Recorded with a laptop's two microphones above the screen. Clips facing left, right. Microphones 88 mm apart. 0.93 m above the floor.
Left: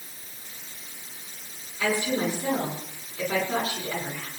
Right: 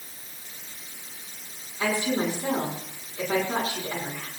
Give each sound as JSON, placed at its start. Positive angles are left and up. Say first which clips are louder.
{"t": 1.8, "sound": "a woman speaking", "louder": "even", "side_deg": -40, "distance_m": 9.0}